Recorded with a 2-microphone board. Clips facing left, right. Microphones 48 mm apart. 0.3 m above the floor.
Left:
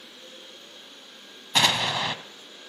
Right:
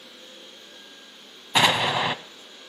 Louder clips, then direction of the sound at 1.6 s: Right 3 dB; 20° right (ahead or behind).